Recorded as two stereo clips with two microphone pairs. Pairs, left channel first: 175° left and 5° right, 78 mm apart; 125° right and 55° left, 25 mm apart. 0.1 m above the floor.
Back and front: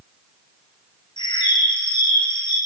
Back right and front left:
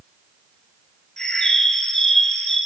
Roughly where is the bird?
Behind.